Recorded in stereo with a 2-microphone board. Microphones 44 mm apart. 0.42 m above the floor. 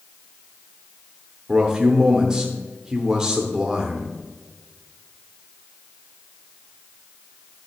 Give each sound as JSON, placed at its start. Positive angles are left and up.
{"t": 1.5, "sound": "a man speaking", "side_deg": -20, "distance_m": 0.7}